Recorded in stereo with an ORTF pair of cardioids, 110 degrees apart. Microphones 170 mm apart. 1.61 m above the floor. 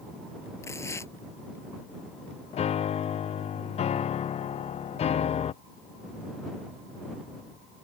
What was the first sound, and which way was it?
Tearing paper, 15° left.